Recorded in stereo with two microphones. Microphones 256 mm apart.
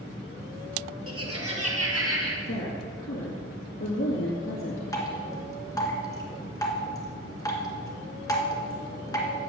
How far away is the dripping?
About 1.8 m.